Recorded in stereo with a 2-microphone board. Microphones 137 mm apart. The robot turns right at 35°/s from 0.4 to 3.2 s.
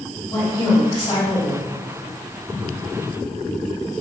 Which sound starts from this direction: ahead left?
A woman speaking, at 0.3 s.